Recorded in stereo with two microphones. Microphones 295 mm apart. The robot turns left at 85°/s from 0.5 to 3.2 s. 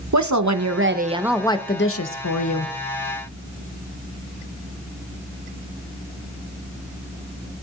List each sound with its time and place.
0.1 s a woman speaking: 110° right, 1.0 m; by 2.7 s 60° left, 1.0 m